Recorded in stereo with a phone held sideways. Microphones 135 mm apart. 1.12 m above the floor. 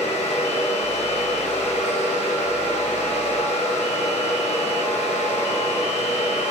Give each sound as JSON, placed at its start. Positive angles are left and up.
{"t": 0.0, "sound": "a fan", "side_deg": 55, "distance_m": 0.7}